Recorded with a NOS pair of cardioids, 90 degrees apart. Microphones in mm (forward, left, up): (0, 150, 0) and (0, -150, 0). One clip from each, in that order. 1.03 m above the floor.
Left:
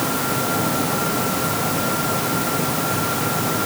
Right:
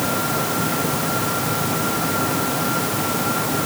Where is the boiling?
I don't hear boiling.